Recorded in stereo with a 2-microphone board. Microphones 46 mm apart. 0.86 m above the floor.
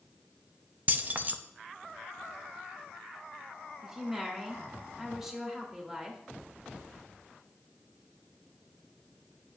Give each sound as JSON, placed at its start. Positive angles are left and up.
{"t": 0.9, "sound": "keys jangling", "side_deg": -35, "distance_m": 0.5}
{"t": 3.8, "sound": "a woman speaking", "side_deg": -10, "distance_m": 2.0}